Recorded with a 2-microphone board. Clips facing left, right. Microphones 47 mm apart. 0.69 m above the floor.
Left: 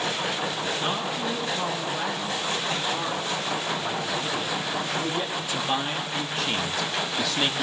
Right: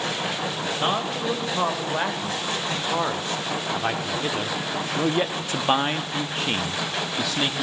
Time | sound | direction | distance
0.8 | a man speaking | 65° right (ahead or behind) | 3.5 m